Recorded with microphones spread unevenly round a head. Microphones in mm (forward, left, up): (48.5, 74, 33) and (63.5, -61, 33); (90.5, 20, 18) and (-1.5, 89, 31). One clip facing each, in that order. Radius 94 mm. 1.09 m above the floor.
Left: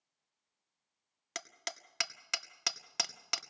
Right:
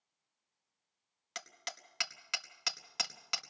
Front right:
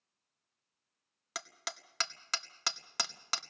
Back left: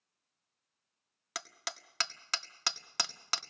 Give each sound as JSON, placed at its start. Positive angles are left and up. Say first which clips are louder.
{"t": 1.4, "sound": "hammering", "louder": "left 2 dB, even", "azimuth_deg": 55, "distance_m": 1.5}